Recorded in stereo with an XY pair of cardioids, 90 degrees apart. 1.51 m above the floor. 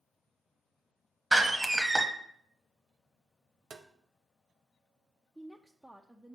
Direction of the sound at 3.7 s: 55° right.